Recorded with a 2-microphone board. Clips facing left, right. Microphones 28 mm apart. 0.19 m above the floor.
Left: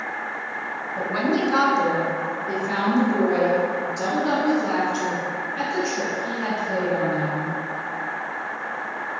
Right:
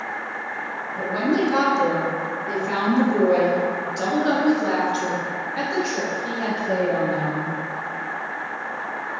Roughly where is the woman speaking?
Centre.